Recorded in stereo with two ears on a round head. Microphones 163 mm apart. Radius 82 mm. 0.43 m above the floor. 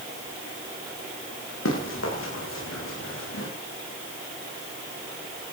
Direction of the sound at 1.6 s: 90° left.